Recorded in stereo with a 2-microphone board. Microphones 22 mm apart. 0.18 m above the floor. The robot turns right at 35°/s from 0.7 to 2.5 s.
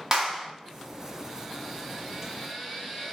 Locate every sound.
0.1 s a clap: 30° right (ahead or behind), 1.1 m